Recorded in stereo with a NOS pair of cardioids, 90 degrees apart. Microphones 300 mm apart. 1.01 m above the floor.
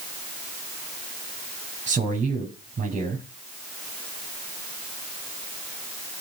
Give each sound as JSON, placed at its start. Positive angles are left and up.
{"t": 1.9, "sound": "a man speaking", "azimuth_deg": -25, "distance_m": 7.0}